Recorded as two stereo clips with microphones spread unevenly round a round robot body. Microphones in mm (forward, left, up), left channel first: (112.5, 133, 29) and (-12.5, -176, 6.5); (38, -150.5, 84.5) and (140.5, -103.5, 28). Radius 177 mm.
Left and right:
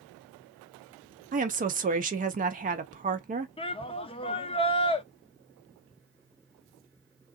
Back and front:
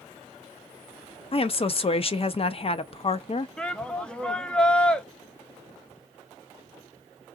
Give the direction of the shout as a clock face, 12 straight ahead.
12 o'clock.